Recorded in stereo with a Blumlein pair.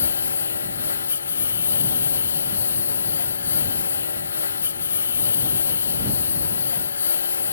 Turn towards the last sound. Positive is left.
turn(degrees=70)